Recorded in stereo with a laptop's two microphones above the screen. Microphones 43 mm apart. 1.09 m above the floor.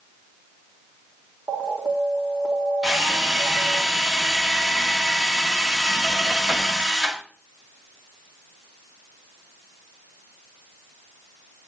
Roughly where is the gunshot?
I don't hear a gunshot.